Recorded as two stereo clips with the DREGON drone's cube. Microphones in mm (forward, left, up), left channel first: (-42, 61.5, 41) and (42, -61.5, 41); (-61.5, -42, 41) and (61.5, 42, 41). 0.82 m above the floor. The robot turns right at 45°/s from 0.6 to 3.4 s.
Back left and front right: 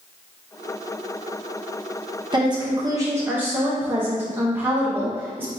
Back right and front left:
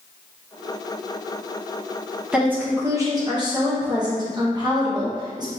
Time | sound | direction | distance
2.3 | a woman speaking | 40° right | 0.8 m